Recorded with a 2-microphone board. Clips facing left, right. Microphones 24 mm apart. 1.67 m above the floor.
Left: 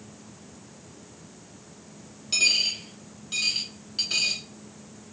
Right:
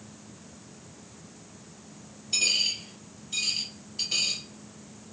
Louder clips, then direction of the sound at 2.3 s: Left 3 dB; 60° left (ahead or behind).